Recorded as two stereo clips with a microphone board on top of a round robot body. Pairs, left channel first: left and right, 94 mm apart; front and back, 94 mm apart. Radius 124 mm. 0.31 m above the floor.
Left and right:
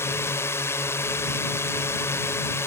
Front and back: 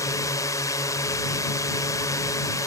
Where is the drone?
35° left.